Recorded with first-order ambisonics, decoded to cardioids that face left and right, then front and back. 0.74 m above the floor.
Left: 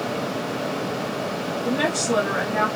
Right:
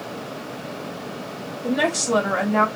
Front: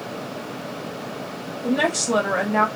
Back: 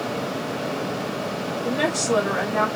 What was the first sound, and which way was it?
A woman speaking, 45° right.